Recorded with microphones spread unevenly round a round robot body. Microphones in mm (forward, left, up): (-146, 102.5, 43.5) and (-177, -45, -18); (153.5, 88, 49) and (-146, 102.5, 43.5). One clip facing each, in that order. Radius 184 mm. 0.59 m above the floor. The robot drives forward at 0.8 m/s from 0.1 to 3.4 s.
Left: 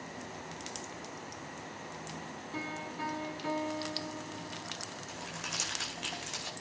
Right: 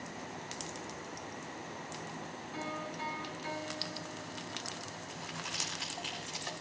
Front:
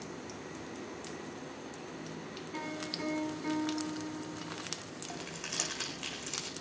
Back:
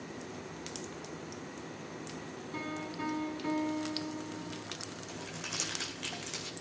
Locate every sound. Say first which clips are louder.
2.5 s a piano: even, back 1 dB; 105° left, 7.5 m; by 4.6 s 110° left, 7.5 m
5.1 s crumpling: left 1 dB, even; 70° left, 9 m